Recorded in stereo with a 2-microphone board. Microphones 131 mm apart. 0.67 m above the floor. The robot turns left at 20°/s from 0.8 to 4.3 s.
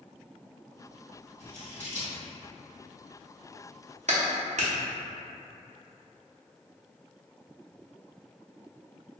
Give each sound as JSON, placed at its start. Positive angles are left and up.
{"t": 1.4, "sound": "scissors", "side_deg": -75, "distance_m": 1.9}
{"t": 4.1, "sound": "a clap", "side_deg": -65, "distance_m": 0.7}